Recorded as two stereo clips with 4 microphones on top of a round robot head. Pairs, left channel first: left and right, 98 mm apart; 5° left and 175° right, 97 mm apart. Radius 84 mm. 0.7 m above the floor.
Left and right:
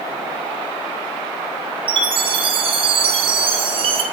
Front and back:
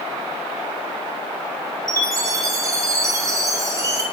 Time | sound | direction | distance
1.9 | a chime | 115° right | 2 m